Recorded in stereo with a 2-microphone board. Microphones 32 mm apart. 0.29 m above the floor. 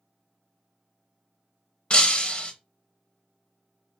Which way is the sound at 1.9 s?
35° left (ahead or behind).